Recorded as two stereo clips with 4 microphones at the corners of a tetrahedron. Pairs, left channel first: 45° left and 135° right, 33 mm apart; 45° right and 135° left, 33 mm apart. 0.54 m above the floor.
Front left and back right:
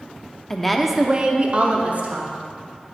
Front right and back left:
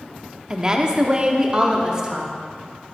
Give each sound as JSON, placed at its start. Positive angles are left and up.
{"t": 0.5, "sound": "a woman speaking", "azimuth_deg": 85, "distance_m": 0.6}